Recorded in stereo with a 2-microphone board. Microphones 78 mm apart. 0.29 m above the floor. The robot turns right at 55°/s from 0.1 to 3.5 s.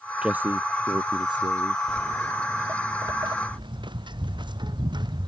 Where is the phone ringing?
I don't hear a phone ringing.